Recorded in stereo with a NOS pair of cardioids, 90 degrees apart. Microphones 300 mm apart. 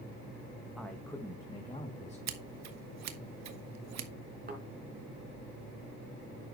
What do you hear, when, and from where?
0.8 s a man speaking: straight ahead, 1.5 m; by 2.2 s 20° left, 3 m
2.3 s scissors: 65° right, 1.4 m
4.5 s a thud: 30° right, 4.5 m